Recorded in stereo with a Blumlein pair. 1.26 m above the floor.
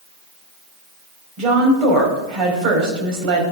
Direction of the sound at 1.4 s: 35° right.